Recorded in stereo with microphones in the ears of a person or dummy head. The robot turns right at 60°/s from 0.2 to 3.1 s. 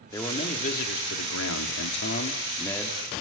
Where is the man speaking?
15° left, 3.5 m; by 3.2 s 170° right, 3.5 m.